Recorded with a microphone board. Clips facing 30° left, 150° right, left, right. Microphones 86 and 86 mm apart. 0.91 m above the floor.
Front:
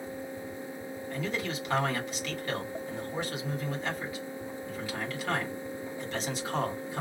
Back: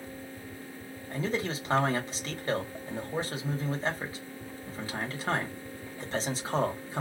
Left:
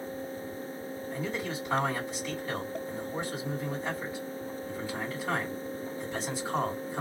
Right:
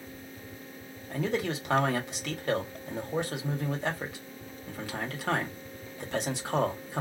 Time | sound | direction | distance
1.1 | a man speaking | 95° right | 1.3 m